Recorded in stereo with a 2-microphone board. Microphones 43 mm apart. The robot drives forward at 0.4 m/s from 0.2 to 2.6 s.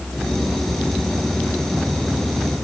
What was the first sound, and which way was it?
Only background noise.